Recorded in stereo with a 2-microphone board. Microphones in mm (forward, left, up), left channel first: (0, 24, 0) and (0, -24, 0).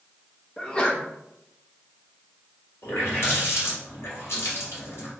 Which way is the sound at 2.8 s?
65° left (ahead or behind).